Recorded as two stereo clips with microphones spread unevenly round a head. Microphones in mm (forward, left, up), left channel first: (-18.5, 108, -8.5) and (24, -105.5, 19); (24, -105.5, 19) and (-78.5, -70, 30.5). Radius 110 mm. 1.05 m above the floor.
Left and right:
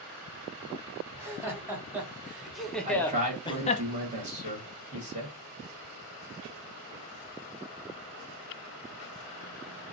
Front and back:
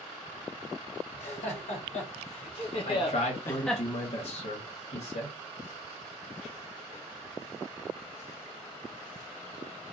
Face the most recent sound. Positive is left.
turn(degrees=-20)